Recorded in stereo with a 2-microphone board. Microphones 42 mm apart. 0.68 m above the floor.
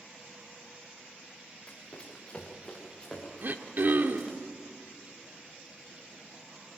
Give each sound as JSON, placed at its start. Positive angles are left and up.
{"t": 1.7, "sound": "running footsteps", "side_deg": 25, "distance_m": 4.0}
{"t": 3.4, "sound": "throat clearing", "side_deg": -50, "distance_m": 1.2}